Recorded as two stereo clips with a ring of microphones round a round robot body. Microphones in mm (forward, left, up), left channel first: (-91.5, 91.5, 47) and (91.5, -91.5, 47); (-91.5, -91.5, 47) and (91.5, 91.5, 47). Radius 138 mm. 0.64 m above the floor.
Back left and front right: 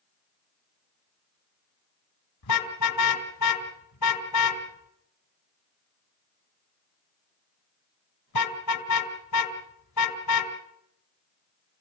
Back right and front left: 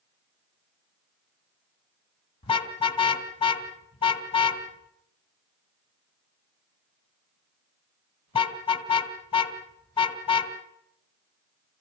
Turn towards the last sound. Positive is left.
turn(degrees=155)